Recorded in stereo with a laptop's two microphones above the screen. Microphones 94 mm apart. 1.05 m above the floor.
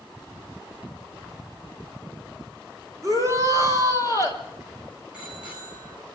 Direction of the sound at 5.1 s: 10° right (ahead or behind).